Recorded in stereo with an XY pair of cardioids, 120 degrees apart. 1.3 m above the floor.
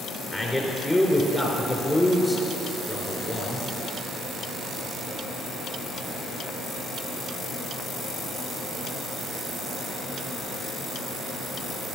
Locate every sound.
0.3 s a man speaking: 5° left, 4 m